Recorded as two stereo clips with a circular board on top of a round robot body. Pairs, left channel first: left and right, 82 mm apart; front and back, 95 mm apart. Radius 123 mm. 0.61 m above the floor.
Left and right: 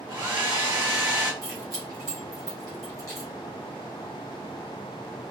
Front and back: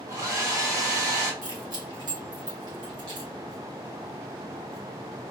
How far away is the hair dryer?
About 3 m.